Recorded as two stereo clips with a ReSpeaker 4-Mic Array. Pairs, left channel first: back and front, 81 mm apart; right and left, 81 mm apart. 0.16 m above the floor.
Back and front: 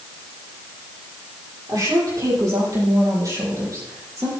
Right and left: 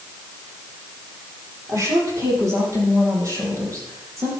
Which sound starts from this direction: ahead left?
A woman speaking, at 1.7 s.